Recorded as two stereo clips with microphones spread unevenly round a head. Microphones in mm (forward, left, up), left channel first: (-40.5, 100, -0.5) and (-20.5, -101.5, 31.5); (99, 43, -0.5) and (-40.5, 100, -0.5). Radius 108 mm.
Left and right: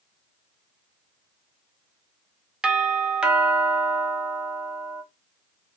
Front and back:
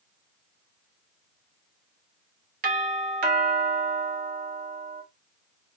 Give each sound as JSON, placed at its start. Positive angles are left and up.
{"t": 2.6, "sound": "a doorbell", "azimuth_deg": -175, "distance_m": 0.8}